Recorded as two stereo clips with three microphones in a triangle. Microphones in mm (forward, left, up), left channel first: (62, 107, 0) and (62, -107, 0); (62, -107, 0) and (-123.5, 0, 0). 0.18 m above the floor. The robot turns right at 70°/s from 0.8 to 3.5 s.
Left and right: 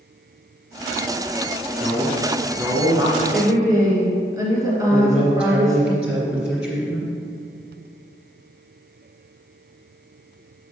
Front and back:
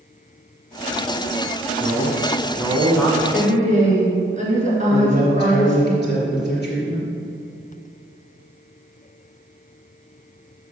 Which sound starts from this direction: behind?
A woman speaking, at 3.3 s.